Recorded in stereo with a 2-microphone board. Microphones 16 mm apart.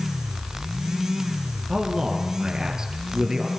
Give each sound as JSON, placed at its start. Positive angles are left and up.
{"t": 1.7, "sound": "a man speaking", "side_deg": -55, "distance_m": 6.0}